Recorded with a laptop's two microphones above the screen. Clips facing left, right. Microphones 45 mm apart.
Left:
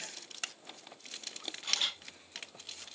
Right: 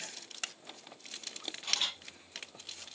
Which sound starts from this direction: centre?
A camera shutter, at 1.6 s.